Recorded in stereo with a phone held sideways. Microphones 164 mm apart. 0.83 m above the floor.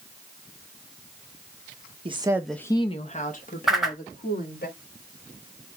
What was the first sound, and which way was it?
A woman speaking, 35° right (ahead or behind).